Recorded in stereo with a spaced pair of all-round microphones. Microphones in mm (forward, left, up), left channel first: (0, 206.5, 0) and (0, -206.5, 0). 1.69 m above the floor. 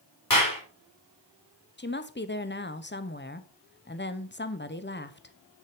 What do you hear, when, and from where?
0.3 s a clap: 50° left (ahead or behind), 4.5 m
1.8 s a woman speaking: 25° left (ahead or behind), 0.9 m